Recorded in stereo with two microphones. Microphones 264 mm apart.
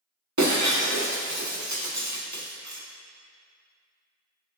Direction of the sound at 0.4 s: 80° right.